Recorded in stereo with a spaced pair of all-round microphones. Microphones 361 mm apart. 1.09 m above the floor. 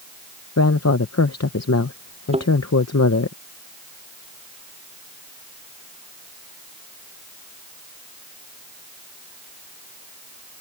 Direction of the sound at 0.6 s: 45° left (ahead or behind).